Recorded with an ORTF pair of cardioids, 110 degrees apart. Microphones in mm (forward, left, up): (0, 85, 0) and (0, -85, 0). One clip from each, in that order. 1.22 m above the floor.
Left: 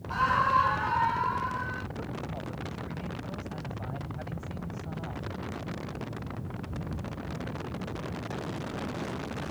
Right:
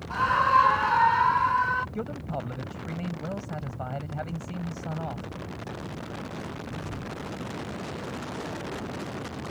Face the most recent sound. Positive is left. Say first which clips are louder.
# right 4 dB
turn(degrees=-60)